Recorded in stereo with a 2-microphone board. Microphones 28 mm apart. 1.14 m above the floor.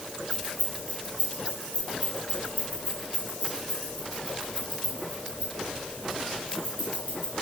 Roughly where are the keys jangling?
Left.